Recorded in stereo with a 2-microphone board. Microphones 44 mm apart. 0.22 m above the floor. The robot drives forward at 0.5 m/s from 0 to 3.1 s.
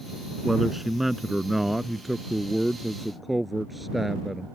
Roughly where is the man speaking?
Centre.